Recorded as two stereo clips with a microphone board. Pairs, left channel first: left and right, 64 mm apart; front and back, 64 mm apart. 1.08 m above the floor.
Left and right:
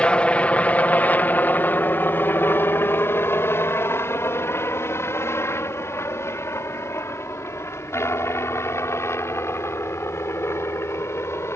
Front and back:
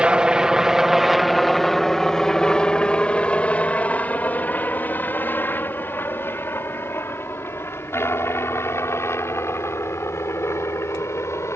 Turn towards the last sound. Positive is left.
turn(degrees=40)